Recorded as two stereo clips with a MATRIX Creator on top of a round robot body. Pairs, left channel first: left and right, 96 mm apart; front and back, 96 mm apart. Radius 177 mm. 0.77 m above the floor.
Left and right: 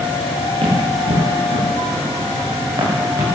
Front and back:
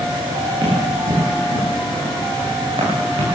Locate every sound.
0.6 s running footsteps: 130° right, 6.5 m; by 3.2 s 145° right, 6 m